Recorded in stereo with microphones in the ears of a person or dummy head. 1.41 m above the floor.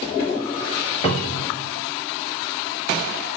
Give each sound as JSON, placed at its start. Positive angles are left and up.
{"t": 1.0, "sound": "a cupboard door", "side_deg": 30, "distance_m": 0.7}